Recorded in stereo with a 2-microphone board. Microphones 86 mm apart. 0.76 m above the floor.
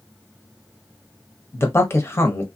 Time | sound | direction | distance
1.5 | a man speaking | 30° left (ahead or behind) | 0.9 m